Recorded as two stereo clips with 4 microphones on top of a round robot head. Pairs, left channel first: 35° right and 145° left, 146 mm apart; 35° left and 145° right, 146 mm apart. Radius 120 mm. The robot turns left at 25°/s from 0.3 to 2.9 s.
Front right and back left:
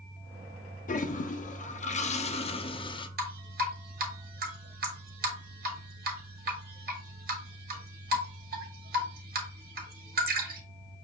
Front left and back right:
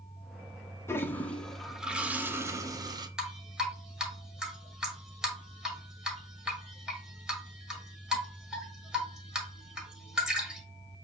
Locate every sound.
0.9 s a toilet flushing: 35° right, 0.7 m; by 3.1 s 85° right, 0.7 m
3.2 s dripping: 130° left, 1.2 m